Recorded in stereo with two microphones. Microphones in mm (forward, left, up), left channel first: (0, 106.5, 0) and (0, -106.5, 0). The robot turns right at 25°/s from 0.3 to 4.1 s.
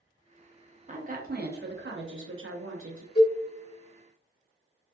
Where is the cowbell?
45° left (ahead or behind), 1.8 m; by 3.4 s 55° left (ahead or behind), 1.8 m.